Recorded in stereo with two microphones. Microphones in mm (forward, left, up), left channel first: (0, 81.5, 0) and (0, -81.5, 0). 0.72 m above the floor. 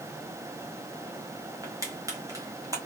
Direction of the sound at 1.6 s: 20° right (ahead or behind).